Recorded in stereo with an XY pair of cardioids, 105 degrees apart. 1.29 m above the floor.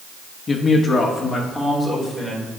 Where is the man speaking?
30° left, 1.5 m; by 2.5 s 10° left, 4 m.